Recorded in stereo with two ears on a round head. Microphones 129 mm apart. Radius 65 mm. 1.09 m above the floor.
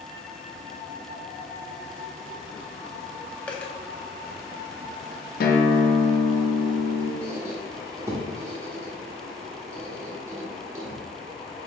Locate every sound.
3.5 s a dropped coin: 10° left (ahead or behind), 0.6 m
5.4 s a guitar: 70° left (ahead or behind), 0.7 m
7.2 s a squeak: 20° right (ahead or behind), 0.9 m